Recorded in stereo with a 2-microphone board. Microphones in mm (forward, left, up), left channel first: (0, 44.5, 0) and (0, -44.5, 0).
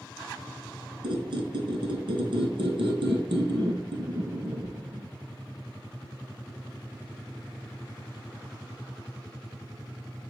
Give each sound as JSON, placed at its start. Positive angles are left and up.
{"t": 1.0, "sound": "a squeak", "side_deg": -85, "distance_m": 0.6}